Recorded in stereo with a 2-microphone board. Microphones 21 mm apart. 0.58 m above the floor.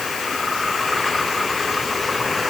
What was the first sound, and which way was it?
Only background noise.